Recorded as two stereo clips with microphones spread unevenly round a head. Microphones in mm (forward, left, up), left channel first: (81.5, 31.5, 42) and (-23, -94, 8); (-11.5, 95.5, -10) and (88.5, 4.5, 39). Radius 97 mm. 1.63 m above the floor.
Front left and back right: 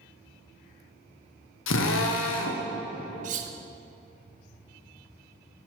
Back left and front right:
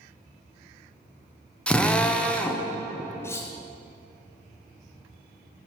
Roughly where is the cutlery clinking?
Behind right.